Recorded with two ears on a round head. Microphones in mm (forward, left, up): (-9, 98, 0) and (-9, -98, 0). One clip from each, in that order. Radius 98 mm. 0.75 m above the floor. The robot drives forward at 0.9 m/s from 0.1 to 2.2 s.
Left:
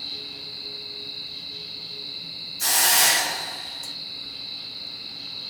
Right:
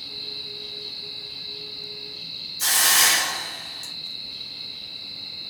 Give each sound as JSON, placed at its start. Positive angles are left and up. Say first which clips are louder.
{"t": 2.6, "sound": "a hiss", "louder": "right 1 dB", "side_deg": -5, "distance_m": 2.5}